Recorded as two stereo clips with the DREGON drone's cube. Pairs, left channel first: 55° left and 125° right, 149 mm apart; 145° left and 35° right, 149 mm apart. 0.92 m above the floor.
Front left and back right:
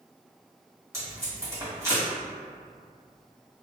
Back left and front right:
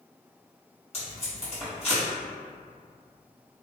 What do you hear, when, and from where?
0.9 s tape being pulled: 170° left, 1.4 m